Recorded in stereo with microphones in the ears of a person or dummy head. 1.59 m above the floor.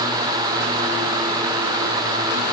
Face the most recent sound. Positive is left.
No sound to turn to.